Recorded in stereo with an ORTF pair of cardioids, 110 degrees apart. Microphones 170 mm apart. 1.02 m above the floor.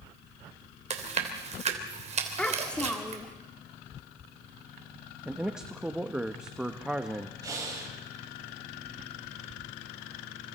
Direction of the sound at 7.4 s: 20° right.